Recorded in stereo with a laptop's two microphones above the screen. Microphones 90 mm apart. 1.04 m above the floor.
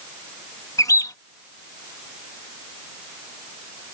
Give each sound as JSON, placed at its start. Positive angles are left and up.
{"t": 0.8, "sound": "a bird", "side_deg": 45}